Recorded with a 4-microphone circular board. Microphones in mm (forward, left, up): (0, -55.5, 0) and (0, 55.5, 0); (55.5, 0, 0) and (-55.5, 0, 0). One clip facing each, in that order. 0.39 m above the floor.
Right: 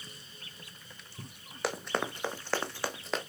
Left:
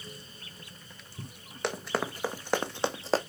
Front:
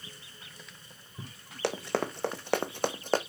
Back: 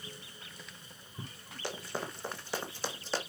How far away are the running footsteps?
About 1.4 m.